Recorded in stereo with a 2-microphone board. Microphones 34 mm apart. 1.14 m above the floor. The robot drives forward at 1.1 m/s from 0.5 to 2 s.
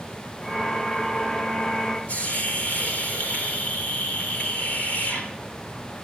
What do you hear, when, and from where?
2.1 s a hiss: 50° left (ahead or behind), 3 m